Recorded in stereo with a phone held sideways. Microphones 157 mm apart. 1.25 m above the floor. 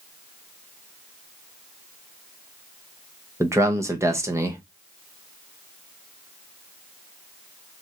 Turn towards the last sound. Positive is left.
turn(degrees=-20)  # may be behind; listen again after turning